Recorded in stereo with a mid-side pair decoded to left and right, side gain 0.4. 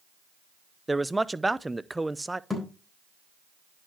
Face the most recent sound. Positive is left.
turn(degrees=5)